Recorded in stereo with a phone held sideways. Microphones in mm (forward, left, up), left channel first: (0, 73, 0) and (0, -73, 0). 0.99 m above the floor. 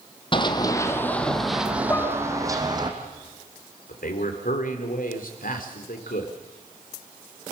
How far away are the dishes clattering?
About 4.5 m.